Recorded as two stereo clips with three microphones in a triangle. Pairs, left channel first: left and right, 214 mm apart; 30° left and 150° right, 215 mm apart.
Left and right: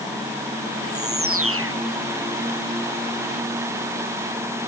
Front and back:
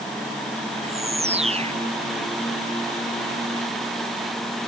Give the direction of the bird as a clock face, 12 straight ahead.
3 o'clock.